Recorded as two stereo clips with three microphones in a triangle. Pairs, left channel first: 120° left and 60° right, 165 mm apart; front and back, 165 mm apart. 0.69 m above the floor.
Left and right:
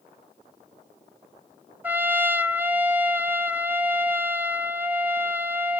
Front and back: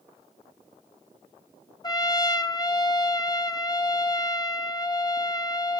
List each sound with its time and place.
1.8 s a trumpet: 5° left, 0.7 m